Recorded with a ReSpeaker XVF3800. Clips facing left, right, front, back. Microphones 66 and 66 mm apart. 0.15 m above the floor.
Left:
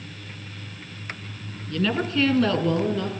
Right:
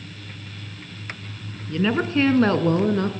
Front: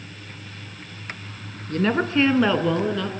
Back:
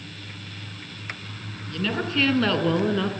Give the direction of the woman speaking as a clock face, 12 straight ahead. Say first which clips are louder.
Right 3 dB, front 6 dB; 1 o'clock.